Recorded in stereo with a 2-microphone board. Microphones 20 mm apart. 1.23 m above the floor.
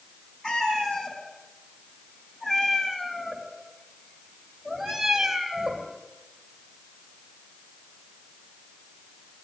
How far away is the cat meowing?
About 5 m.